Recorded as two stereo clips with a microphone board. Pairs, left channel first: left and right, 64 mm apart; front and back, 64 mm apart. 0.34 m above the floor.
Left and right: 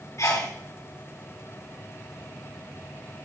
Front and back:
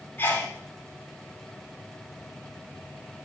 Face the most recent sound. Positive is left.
turn(degrees=45)